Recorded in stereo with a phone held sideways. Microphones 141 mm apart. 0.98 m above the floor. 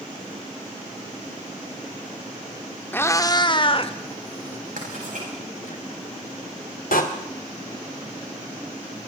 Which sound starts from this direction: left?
A door slam, at 6.9 s.